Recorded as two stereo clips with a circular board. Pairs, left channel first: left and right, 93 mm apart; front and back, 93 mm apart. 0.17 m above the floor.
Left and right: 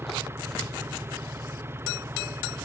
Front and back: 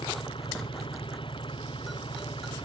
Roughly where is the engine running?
Ahead right.